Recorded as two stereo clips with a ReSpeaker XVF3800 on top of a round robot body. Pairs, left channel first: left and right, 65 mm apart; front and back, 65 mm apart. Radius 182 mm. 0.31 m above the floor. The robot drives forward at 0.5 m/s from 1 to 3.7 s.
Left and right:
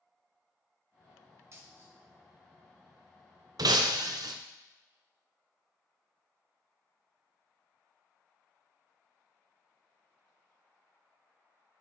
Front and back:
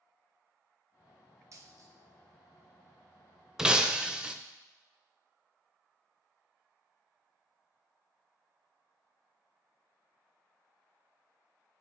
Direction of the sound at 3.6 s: 95° right.